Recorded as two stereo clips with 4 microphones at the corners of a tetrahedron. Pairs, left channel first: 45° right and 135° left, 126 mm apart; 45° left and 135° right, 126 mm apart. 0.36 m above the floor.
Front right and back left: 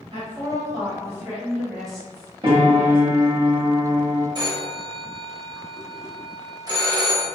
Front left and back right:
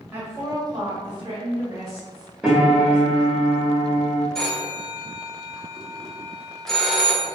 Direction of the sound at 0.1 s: 160° left.